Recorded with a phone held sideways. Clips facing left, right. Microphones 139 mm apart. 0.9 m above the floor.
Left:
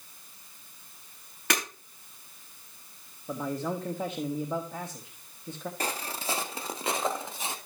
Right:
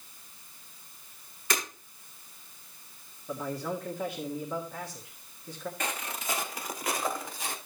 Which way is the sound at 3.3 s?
20° left (ahead or behind).